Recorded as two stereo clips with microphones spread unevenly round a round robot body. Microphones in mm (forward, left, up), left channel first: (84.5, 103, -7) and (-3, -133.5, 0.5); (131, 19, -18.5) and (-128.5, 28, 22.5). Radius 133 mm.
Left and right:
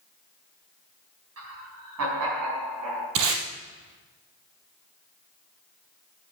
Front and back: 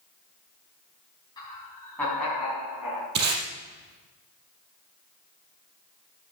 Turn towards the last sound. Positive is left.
turn(degrees=-130)